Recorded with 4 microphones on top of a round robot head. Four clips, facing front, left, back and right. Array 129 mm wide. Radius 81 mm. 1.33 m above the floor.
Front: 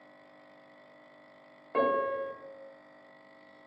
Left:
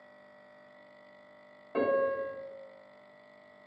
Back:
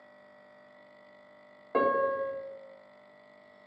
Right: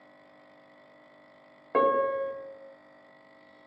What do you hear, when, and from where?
1.7 s a piano: 110° right, 0.7 m